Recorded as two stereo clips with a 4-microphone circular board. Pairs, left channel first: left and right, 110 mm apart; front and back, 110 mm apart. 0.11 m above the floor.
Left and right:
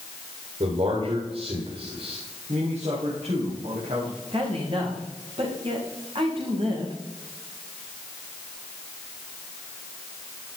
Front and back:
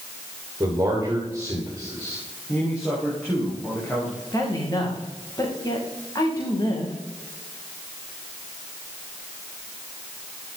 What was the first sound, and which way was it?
A man speaking, 115° right.